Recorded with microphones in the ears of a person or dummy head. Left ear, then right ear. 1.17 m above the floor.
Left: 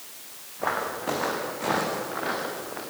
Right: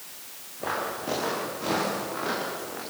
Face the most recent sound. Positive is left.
turn(degrees=15)  # may be behind; listen again after turning